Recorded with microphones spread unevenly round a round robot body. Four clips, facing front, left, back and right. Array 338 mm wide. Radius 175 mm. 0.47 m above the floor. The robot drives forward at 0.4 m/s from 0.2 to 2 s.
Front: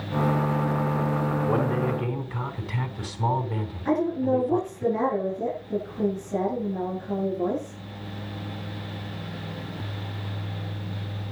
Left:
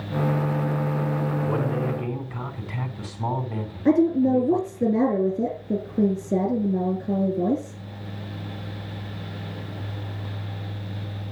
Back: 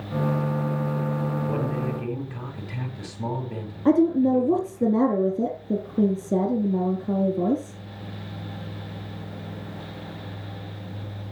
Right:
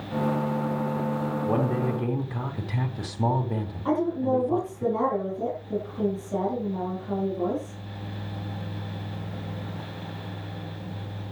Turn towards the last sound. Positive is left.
turn(degrees=145)